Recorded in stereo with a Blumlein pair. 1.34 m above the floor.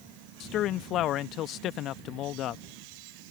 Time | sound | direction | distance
0.4 | a man speaking | 35° left | ?